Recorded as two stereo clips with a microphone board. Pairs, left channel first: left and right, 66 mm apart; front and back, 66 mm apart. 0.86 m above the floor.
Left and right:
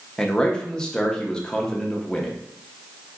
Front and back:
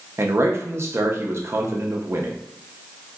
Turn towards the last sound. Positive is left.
turn(degrees=160)